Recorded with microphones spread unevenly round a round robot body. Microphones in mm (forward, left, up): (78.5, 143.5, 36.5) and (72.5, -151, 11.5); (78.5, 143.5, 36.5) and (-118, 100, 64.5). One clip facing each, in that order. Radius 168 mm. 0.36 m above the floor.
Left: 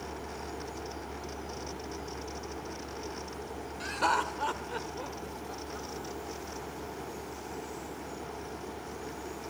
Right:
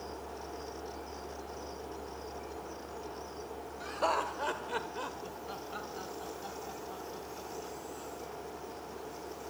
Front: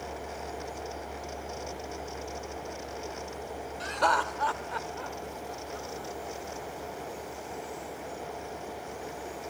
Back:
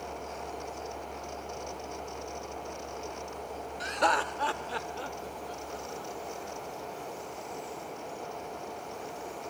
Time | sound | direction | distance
3.8 | laughter | 120° left | 1.7 m